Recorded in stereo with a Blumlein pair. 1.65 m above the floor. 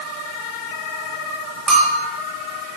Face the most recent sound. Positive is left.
turn(degrees=-15)